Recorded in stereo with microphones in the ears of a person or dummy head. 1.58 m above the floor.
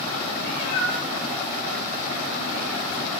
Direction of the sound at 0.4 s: 60° left (ahead or behind).